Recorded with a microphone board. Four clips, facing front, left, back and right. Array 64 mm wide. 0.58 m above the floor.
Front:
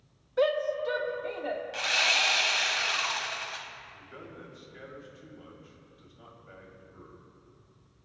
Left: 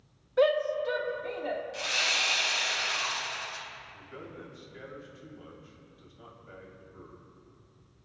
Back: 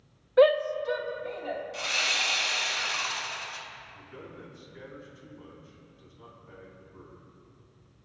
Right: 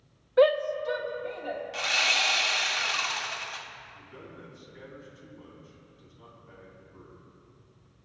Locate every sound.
0.4 s a shout: 155° right, 0.7 m; by 1.6 s 30° left, 1.1 m
1.7 s sawing: 30° right, 1.7 m
3.9 s a man speaking: 40° left, 3 m